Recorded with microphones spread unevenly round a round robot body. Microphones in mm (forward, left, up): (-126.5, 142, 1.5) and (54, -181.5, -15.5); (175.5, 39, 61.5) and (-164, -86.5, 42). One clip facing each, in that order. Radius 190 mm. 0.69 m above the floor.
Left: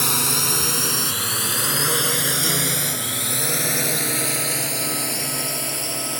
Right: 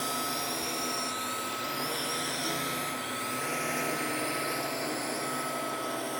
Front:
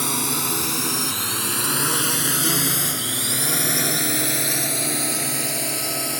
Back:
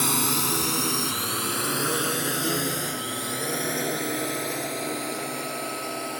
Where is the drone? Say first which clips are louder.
Left 8 dB, even; 115° left; by 6.2 s 75° left.